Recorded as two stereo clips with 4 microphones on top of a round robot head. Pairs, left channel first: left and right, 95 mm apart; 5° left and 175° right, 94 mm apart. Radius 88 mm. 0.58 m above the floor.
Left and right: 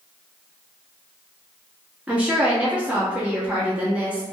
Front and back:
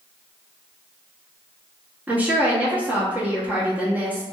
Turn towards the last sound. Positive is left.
turn(degrees=-140)